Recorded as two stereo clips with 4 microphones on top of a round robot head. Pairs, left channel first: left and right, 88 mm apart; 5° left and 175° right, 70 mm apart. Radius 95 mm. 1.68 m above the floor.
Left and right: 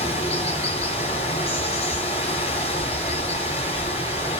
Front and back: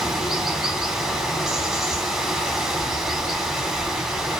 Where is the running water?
100° left, 3.5 m.